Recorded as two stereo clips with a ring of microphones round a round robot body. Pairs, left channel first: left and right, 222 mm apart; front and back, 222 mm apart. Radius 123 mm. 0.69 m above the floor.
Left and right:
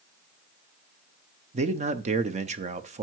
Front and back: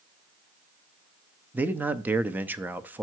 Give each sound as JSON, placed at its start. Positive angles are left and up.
{"t": 1.5, "sound": "a man speaking", "azimuth_deg": -105, "distance_m": 0.6}